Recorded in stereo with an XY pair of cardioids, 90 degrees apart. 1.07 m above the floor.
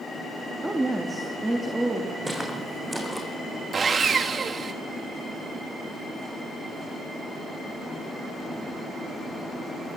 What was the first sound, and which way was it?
A woman speaking, 15° right.